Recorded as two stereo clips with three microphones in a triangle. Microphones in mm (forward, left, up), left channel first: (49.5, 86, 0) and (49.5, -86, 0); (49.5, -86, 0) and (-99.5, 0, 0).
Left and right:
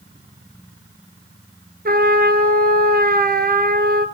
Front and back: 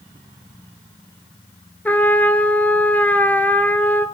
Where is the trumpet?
110° right, 1.1 m.